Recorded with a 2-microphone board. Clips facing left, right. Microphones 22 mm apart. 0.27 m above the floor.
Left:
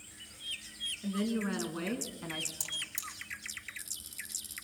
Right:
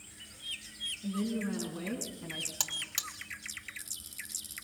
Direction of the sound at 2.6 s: 60° right (ahead or behind).